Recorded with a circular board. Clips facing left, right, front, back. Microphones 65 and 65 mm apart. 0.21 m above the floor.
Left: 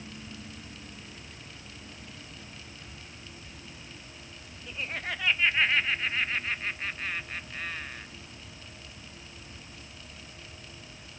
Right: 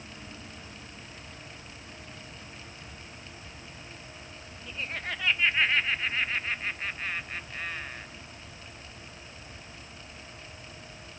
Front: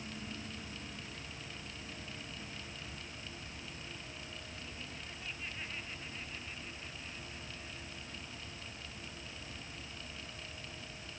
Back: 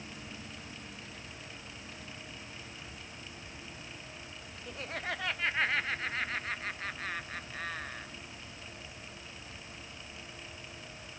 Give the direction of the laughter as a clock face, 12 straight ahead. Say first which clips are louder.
Even, back 10 dB; 6 o'clock.